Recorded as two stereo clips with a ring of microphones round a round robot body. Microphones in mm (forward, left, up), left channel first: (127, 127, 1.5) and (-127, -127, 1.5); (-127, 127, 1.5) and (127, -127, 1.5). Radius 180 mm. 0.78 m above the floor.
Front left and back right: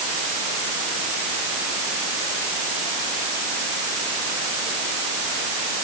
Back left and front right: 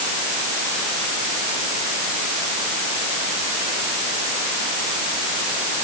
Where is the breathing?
No breathing in this recording.